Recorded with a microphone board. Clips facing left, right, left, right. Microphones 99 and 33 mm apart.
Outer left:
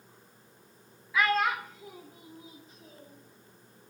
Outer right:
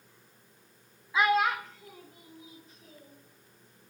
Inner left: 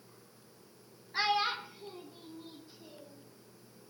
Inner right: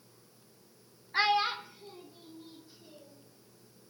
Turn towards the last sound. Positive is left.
turn(degrees=30)  # may be behind; listen again after turning